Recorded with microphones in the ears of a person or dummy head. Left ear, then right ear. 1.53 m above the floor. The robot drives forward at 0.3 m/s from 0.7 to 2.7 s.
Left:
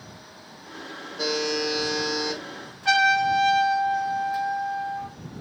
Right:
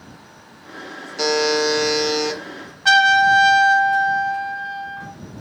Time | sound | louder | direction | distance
1.2 | a buzzer | right 8 dB | 80° right | 0.6 m
2.9 | a trumpet | right 7 dB | 90° right | 0.9 m